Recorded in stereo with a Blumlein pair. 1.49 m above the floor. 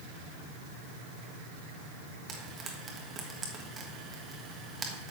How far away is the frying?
About 1.5 m.